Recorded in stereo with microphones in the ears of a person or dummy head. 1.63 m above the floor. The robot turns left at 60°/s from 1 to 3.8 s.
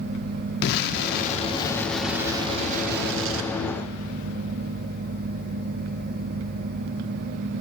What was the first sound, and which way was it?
An explosion, 60° left.